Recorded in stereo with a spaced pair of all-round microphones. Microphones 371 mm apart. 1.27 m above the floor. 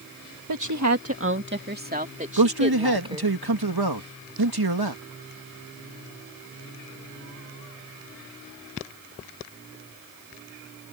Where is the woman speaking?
60° right (ahead or behind); by 3.3 s 15° right (ahead or behind).